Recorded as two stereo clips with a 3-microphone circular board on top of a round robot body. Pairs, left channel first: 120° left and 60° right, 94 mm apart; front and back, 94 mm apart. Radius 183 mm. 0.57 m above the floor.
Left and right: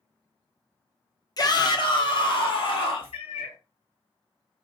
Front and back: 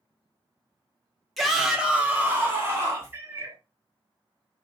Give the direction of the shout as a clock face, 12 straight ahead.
9 o'clock.